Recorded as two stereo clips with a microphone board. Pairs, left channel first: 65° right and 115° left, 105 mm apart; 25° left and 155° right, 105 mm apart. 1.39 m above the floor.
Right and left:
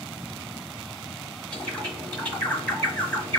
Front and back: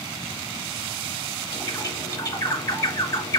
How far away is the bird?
About 1.5 m.